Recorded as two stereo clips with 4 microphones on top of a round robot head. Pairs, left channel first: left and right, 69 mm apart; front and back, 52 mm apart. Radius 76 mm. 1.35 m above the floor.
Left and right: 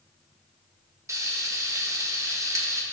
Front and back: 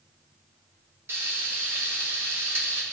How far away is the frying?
About 1.4 m.